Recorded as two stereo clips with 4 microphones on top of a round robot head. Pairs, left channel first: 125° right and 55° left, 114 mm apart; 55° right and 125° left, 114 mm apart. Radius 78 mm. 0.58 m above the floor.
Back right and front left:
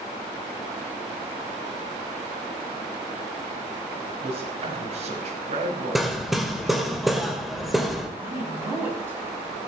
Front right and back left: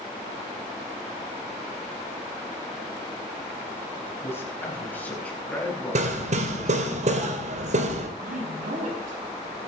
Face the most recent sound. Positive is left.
turn(degrees=125)